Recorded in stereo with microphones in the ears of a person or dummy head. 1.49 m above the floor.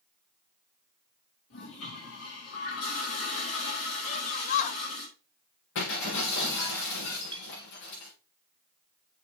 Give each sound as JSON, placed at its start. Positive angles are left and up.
{"t": 1.5, "sound": "a toilet flushing", "side_deg": 85, "distance_m": 4.0}
{"t": 4.1, "sound": "a shout", "side_deg": 45, "distance_m": 1.1}
{"t": 5.8, "sound": "breaking glass", "side_deg": 75, "distance_m": 6.5}
{"t": 7.3, "sound": "a clink", "side_deg": -30, "distance_m": 0.7}